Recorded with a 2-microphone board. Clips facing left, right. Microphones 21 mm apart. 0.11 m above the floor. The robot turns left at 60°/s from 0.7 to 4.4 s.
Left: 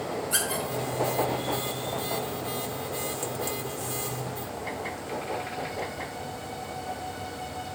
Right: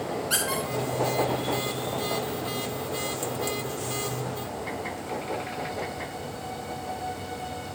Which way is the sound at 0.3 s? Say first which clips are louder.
Right 2 dB; 70° right (ahead or behind).